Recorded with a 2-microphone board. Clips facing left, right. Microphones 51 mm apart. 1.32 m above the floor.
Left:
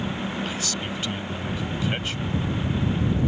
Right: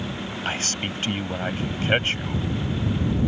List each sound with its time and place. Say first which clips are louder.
0.5 s a man speaking: right 2 dB; 45° right (ahead or behind)